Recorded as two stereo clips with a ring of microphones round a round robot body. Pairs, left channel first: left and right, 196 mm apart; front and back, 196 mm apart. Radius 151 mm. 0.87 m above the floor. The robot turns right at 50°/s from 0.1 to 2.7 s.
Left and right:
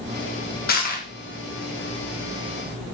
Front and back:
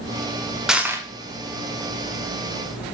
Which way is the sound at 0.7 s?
95° left.